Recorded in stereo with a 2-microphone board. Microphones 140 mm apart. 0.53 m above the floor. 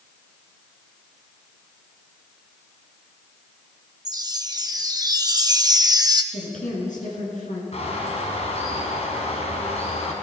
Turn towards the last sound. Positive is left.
turn(degrees=55)  # may be behind; listen again after turning